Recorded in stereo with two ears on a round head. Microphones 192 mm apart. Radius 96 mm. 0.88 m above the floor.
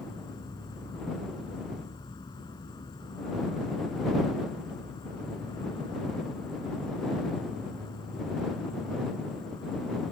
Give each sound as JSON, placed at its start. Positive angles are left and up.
{"t": 0.0, "sound": "an insect", "side_deg": 20}